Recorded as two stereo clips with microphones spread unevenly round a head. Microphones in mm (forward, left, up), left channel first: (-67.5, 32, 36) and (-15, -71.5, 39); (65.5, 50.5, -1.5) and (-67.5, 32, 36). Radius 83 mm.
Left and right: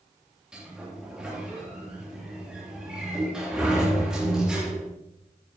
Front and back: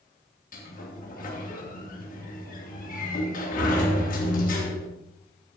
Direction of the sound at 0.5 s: 20° left.